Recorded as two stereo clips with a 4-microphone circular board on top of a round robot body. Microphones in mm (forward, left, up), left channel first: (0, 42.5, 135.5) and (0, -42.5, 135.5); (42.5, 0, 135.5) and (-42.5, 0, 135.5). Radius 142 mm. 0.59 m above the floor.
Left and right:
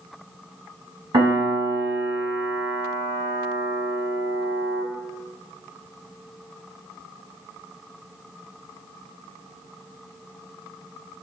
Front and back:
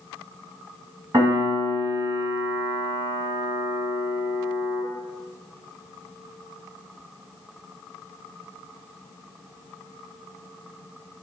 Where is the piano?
125° right, 2 m.